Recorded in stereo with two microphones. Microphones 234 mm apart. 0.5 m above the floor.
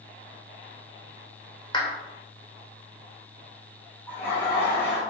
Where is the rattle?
I don't hear a rattle.